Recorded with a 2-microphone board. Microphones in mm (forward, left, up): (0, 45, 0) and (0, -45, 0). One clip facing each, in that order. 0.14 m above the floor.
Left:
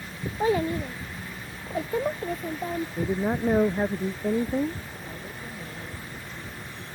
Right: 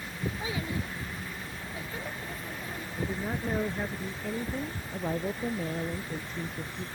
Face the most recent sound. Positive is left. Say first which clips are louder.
# right 7 dB
turn(degrees=-50)  # may be behind; listen again after turning